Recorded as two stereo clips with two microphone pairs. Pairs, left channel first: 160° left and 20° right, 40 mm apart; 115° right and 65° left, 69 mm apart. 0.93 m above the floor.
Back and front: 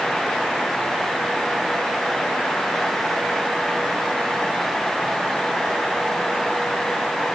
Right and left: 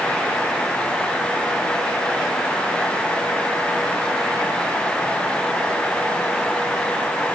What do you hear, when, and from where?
Only background noise.